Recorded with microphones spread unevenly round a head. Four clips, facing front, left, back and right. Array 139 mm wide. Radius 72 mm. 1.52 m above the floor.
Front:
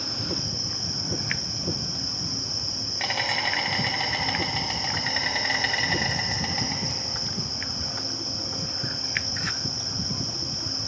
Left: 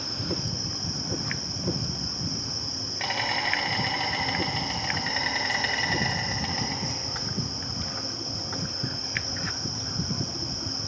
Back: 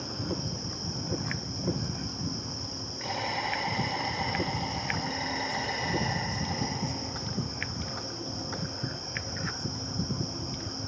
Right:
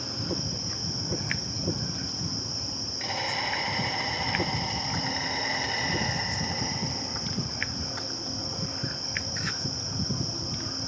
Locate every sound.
0.0 s an insect: 35° left, 3 m